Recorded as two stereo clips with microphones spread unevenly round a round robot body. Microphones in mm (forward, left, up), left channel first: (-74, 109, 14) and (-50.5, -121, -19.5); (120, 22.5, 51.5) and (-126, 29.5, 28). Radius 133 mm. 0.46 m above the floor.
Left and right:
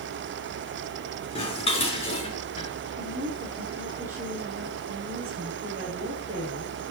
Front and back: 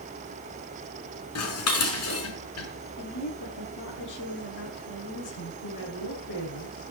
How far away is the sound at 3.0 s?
About 9 m.